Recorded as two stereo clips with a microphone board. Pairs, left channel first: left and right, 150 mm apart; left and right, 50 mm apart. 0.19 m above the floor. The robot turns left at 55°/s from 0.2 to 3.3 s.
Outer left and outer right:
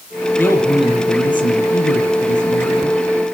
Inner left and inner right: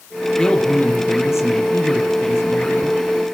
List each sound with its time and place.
0.4 s a man speaking: 170° left, 5.5 m; by 3.0 s 25° left, 5.5 m